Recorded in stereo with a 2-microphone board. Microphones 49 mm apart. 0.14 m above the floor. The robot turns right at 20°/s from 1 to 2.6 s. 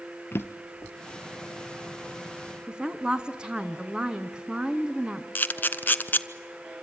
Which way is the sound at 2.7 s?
20° right (ahead or behind).